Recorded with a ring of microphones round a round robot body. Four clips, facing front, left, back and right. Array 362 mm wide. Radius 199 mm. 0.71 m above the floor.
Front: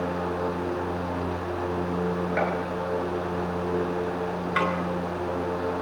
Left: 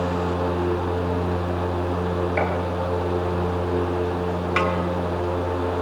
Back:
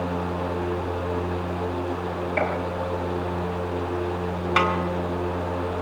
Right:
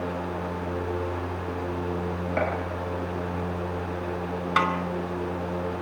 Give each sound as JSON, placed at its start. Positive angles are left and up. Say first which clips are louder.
{"t": 2.4, "sound": "a gunshot", "louder": "left 1 dB, back 2 dB", "azimuth_deg": -75, "distance_m": 6.5}
{"t": 4.6, "sound": "a snare drum", "louder": "even, back 4 dB", "azimuth_deg": -145, "distance_m": 4.0}